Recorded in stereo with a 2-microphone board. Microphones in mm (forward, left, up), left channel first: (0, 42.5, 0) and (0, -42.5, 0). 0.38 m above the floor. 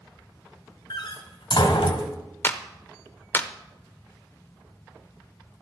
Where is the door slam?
65° left (ahead or behind), 1.4 m.